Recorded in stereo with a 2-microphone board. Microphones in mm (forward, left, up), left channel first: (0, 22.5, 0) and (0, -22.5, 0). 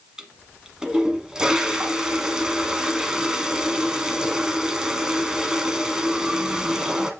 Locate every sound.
0.2 s a toilet flushing: 15° right (ahead or behind), 1.1 m